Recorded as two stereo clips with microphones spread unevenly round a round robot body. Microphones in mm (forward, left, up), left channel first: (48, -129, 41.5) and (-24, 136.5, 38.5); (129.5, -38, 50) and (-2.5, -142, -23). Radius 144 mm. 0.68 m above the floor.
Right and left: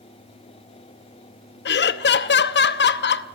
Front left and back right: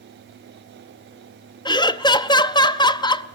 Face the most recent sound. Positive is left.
turn(degrees=-45)